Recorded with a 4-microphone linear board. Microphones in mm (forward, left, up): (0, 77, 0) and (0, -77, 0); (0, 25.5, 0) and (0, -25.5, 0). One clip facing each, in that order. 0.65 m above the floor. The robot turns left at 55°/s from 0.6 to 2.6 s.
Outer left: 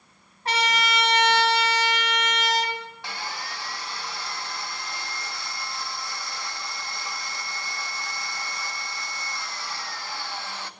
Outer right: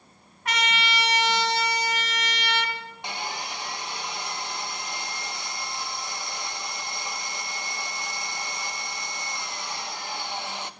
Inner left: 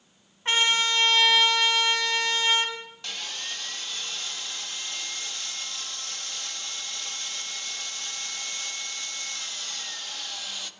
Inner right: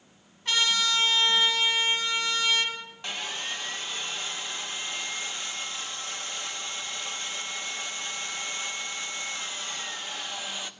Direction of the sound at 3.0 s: 20° right (ahead or behind).